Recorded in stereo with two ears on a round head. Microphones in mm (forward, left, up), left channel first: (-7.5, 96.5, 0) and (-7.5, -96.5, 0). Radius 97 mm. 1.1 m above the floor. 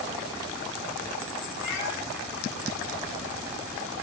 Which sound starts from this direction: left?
A cat meowing, at 1.6 s.